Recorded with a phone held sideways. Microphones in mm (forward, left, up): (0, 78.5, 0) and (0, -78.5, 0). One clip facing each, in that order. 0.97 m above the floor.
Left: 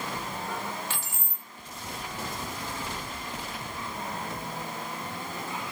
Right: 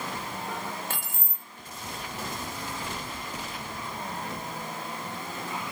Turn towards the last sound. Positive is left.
turn(degrees=-50)  # may be behind; listen again after turning